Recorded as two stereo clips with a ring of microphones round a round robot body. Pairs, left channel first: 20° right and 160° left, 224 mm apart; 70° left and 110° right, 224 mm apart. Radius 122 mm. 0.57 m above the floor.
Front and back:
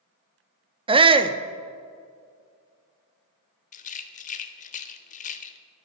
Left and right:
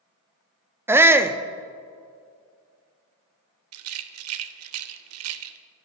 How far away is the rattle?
About 0.6 m.